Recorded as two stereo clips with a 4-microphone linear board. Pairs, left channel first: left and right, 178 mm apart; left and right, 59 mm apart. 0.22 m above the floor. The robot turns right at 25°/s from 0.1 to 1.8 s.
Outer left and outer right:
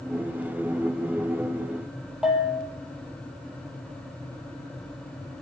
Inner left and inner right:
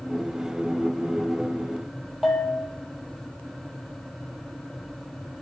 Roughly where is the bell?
Centre.